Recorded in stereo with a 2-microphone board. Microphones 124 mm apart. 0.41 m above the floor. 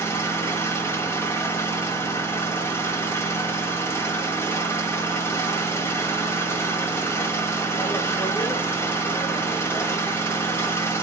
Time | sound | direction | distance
0.0 | an engine running | 20° left (ahead or behind) | 0.8 m